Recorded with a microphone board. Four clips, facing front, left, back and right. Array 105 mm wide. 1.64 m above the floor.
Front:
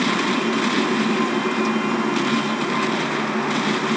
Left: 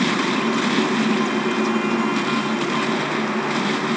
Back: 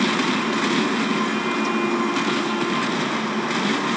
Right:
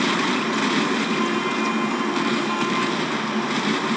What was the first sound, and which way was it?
Only background noise.